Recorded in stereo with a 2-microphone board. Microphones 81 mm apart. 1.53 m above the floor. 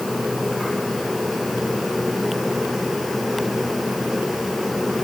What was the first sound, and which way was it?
Only background noise.